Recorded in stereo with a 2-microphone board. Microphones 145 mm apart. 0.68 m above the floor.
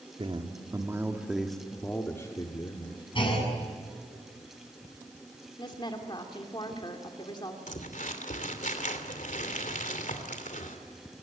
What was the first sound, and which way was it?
A man speaking, 40° right (ahead or behind).